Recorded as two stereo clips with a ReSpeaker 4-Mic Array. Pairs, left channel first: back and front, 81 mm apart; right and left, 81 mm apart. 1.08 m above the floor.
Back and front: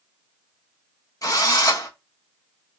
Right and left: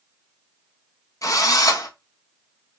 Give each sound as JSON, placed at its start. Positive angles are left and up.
{"t": 1.2, "sound": "a drill", "azimuth_deg": -135, "distance_m": 0.8}